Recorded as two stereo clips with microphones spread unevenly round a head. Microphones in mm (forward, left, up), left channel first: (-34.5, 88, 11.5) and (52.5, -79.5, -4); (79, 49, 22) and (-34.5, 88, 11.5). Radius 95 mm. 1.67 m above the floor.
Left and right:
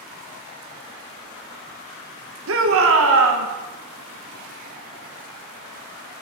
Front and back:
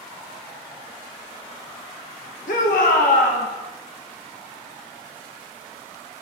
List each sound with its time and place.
2.5 s a shout: 45° right, 1.5 m